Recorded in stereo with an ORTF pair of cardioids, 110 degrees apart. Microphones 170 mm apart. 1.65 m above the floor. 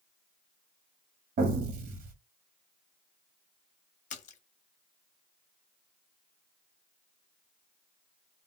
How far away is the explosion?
About 1.2 m.